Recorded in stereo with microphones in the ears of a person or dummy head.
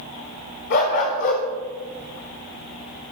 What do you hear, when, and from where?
0.7 s a dog barking: 55° left (ahead or behind), 3.5 m